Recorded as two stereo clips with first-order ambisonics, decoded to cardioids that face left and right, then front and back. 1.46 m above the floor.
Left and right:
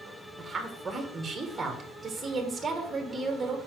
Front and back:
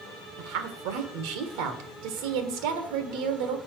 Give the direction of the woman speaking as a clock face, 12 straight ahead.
6 o'clock.